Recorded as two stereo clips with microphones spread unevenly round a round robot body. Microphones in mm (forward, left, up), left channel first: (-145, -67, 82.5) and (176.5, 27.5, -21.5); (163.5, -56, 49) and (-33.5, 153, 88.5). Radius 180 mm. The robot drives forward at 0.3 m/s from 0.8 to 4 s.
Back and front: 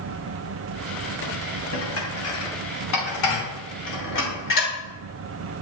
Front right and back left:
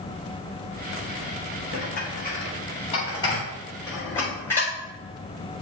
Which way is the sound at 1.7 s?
110° right.